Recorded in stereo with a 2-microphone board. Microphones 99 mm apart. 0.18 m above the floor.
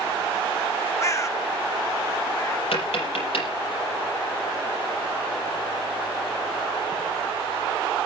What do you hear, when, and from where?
1.0 s a bird: 30° left (ahead or behind), 0.8 m
2.7 s tapping: 70° left (ahead or behind), 6 m